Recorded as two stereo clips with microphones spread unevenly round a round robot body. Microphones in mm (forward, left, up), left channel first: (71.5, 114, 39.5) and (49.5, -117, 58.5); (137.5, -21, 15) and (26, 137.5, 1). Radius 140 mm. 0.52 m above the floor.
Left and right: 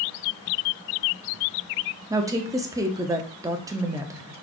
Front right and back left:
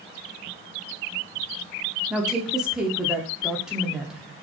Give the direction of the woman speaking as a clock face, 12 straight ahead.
5 o'clock.